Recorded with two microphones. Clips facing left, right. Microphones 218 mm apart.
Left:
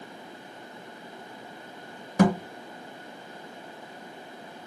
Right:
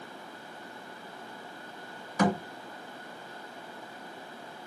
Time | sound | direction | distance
2.2 | a thud | 50° left (ahead or behind) | 0.9 m